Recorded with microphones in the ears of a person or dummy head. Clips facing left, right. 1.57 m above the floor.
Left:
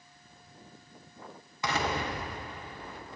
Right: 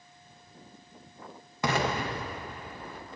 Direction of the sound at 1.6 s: 45° right (ahead or behind).